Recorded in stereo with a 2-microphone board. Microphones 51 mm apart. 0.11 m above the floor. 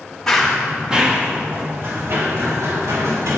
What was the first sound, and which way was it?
Running footsteps, 10° left (ahead or behind).